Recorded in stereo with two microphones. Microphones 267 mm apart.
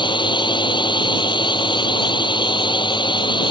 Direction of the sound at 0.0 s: 15° left (ahead or behind).